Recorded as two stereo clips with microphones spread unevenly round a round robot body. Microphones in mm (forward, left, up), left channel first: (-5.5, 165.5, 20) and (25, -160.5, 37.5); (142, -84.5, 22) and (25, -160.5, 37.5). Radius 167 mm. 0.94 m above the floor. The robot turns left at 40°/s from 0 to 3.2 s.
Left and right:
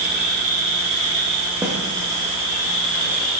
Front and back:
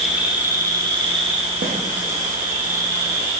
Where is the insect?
60° right, 2.0 m; by 3.4 s 170° left, 2.0 m.